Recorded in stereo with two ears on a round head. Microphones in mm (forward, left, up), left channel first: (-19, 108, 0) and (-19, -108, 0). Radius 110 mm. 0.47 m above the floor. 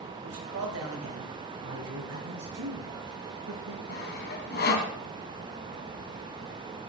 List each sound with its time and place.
0.2 s a man speaking: 60° right (ahead or behind), 3 m
1.6 s a man speaking: 85° right, 6 m
3.9 s sawing: 40° left (ahead or behind), 2.5 m